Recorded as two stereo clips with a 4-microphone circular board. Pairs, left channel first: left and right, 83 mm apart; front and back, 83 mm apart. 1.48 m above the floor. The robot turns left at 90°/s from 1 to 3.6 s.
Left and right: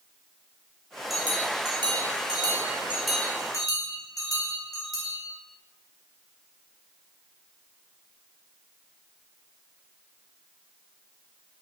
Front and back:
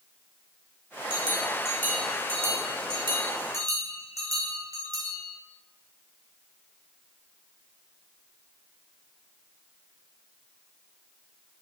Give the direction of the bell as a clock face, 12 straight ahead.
12 o'clock.